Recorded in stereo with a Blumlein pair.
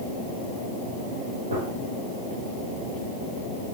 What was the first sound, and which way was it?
A gunshot, 70° right.